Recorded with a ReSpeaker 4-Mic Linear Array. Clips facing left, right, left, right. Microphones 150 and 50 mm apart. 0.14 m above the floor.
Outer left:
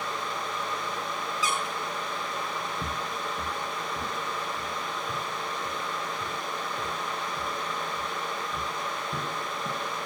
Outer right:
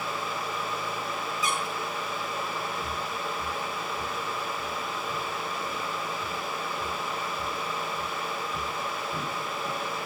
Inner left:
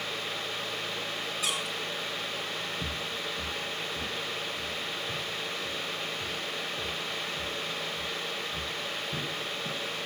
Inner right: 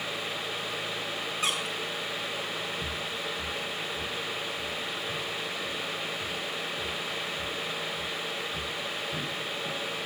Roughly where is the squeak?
Right.